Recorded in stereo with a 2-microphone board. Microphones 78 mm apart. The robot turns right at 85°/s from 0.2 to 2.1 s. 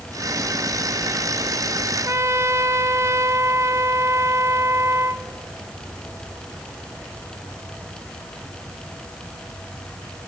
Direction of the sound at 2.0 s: 45° right (ahead or behind).